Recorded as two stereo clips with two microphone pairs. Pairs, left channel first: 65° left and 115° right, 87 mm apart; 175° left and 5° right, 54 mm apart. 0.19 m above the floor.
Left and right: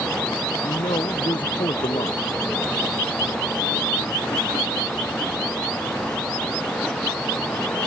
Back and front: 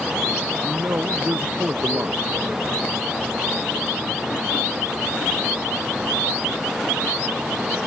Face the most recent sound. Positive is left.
turn(degrees=40)